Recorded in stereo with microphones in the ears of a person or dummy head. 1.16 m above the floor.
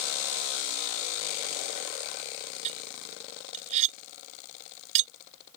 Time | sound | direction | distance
2.6 | cutlery clinking | 35° right (ahead or behind) | ?